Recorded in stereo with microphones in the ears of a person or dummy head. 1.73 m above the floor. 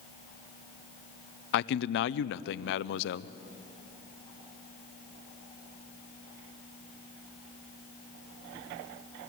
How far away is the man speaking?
About 0.5 m.